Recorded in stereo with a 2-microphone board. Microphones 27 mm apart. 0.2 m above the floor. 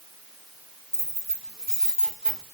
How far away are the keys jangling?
About 4.5 m.